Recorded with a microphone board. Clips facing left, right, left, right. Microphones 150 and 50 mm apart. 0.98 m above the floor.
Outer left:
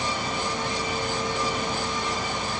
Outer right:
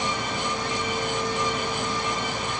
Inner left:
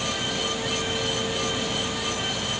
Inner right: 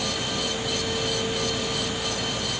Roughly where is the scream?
No scream in this recording.